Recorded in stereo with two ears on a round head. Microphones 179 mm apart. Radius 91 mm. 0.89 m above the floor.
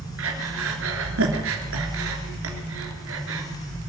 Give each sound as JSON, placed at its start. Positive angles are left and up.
{"t": 0.2, "sound": "breathing", "side_deg": -75, "distance_m": 3.0}